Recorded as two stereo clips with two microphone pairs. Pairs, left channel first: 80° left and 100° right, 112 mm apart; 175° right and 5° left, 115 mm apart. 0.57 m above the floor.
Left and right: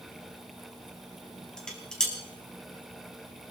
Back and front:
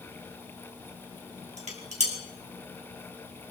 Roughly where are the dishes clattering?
Ahead.